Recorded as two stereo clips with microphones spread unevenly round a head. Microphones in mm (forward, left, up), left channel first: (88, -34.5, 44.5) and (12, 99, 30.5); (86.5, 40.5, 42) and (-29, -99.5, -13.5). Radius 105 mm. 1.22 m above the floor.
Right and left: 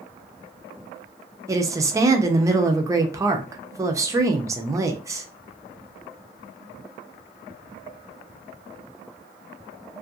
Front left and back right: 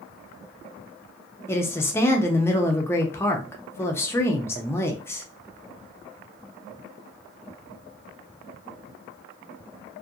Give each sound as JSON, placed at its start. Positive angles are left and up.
{"t": 1.5, "sound": "a woman speaking", "azimuth_deg": 150, "distance_m": 0.5}